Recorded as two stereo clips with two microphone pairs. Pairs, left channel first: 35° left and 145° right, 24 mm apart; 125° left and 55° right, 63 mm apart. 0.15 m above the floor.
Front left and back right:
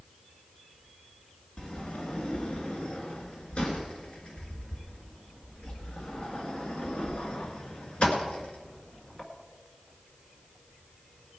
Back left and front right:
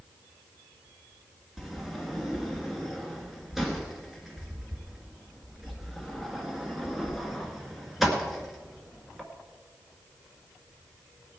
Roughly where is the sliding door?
Ahead left.